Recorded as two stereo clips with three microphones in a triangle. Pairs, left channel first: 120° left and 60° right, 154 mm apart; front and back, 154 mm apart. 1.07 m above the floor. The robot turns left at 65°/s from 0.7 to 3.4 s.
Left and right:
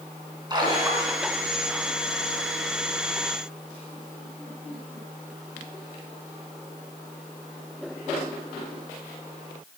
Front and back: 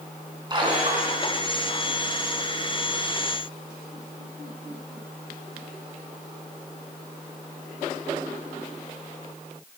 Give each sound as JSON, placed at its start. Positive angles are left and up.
{"t": 0.5, "sound": "a splash", "azimuth_deg": -120, "distance_m": 3.5}